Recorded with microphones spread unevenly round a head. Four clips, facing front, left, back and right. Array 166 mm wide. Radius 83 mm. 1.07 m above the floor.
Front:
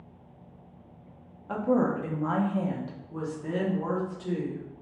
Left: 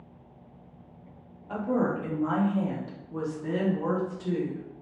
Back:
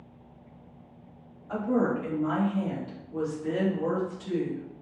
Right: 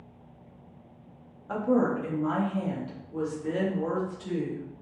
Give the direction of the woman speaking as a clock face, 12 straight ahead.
1 o'clock.